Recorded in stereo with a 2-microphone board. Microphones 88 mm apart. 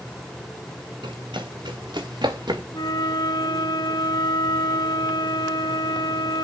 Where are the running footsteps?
65° right (ahead or behind), 3 m; by 2.6 s 55° right (ahead or behind), 1.9 m.